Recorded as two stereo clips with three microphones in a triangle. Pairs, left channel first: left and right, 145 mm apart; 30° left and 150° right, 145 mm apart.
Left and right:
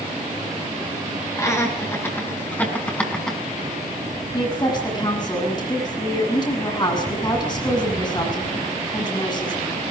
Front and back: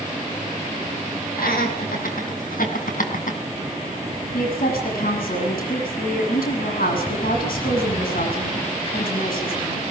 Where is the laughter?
20° left, 7.5 m; by 3.4 s 5° left, 5.5 m.